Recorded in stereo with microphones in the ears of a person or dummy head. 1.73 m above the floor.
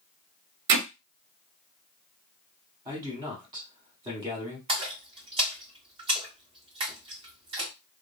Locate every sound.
0.7 s hammering: 50° right (ahead or behind), 0.7 m
2.9 s a man speaking: 15° right (ahead or behind), 0.9 m
4.7 s a splash: 35° right (ahead or behind), 1.8 m